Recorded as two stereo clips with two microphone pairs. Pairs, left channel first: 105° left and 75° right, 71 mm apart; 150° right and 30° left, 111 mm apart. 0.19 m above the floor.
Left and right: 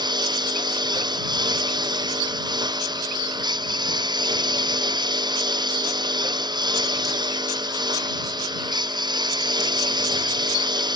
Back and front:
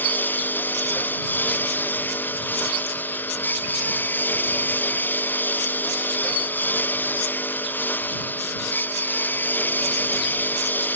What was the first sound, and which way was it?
A lawn mower, 75° right.